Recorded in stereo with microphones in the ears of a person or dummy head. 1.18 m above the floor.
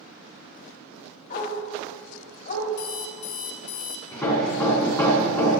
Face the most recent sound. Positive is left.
turn(degrees=10)  # may be behind; listen again after turning